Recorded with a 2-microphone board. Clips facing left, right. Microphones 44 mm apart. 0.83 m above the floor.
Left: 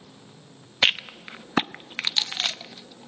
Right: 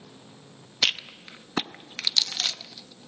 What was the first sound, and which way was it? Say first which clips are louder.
A rattle: left 4 dB; 30° left (ahead or behind).